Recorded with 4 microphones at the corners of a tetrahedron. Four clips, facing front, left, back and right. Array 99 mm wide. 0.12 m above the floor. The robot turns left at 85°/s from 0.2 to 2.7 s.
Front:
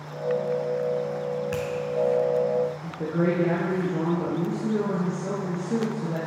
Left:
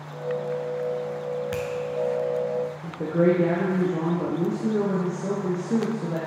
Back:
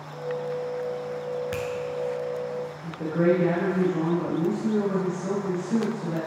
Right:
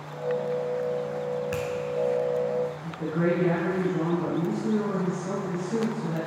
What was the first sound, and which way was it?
A finger snap, 140° left.